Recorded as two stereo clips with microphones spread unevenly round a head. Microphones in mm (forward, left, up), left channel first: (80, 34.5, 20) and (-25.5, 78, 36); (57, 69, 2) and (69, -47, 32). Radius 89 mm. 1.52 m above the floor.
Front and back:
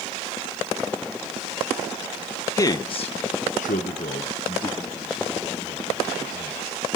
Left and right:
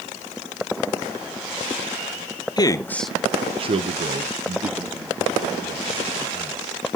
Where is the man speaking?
40° left, 1.2 m; by 6.8 s 95° right, 5 m.